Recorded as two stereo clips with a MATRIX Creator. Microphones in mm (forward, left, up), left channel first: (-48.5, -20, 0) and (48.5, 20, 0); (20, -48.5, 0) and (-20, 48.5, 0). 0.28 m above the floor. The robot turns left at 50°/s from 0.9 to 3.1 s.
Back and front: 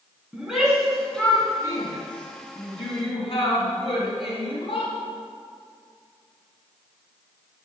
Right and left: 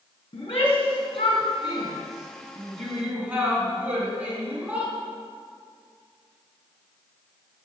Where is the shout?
60° right, 3.5 m; by 4.9 s 170° right, 3.5 m.